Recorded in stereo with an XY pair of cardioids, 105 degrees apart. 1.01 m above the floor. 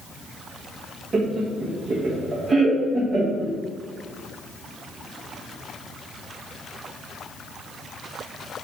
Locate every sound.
1.1 s laughter: 45° right, 0.7 m